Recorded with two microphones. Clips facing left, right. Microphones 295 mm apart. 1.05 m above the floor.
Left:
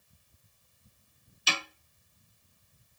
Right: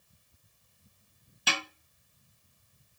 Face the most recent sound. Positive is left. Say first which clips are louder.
# right 1 dB
turn(degrees=-65)  # may be behind; listen again after turning